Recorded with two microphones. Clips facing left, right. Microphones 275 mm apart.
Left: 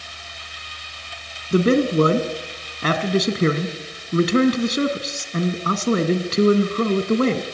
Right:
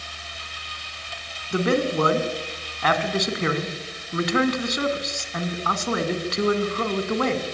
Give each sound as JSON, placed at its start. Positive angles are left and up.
{"t": 1.5, "sound": "a man speaking", "side_deg": 35, "distance_m": 1.9}